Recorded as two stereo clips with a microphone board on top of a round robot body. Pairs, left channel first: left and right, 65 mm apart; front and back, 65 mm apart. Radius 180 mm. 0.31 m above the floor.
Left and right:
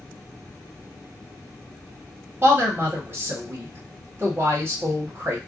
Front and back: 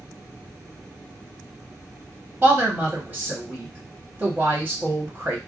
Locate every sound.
2.4 s a woman speaking: 125° right, 1.3 m